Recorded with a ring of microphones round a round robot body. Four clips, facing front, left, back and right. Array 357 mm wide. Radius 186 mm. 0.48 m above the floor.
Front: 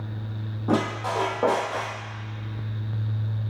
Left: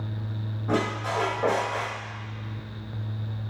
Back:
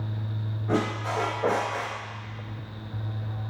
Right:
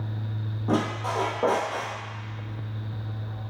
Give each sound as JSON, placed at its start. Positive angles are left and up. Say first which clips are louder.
{"t": 0.7, "sound": "a squeak", "louder": "right 1 dB, front 3 dB", "azimuth_deg": -25, "distance_m": 1.6}